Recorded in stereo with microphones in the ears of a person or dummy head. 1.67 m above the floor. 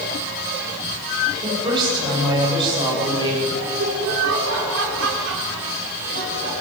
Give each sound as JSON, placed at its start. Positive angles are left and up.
{"t": 1.4, "sound": "a woman speaking", "side_deg": -25, "distance_m": 10.0}
{"t": 3.6, "sound": "laughter", "side_deg": -65, "distance_m": 6.0}